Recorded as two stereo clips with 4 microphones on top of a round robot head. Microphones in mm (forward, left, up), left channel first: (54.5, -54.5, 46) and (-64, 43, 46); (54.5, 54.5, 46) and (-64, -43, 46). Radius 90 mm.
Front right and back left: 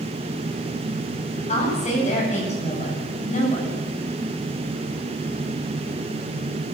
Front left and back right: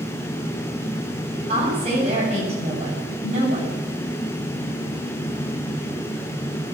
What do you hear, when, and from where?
1.5 s a woman speaking: 90° right, 9 m